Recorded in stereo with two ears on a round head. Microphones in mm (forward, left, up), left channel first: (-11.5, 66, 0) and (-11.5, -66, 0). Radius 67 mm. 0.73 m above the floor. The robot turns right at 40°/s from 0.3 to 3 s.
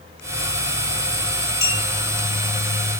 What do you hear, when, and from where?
1.6 s a clink: 25° left (ahead or behind), 1.5 m; by 1.9 s 35° left (ahead or behind), 1.5 m